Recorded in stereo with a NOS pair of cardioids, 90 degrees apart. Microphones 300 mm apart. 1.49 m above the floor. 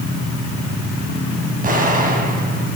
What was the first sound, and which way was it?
An explosion, 30° right.